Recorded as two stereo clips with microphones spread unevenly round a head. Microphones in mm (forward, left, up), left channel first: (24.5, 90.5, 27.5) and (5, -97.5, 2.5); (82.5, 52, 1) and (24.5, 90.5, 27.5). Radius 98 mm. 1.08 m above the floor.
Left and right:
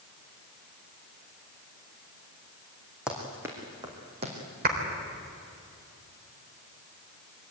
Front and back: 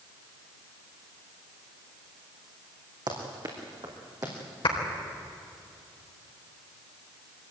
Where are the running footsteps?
175° left, 3.5 m; by 4.3 s 160° right, 4 m.